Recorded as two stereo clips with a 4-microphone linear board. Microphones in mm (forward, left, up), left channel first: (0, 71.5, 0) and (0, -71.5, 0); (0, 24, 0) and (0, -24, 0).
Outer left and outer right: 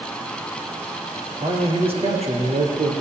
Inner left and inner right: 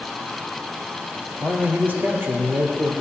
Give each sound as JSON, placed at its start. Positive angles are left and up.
{"t": 1.4, "sound": "a man speaking", "side_deg": -35, "distance_m": 1.9}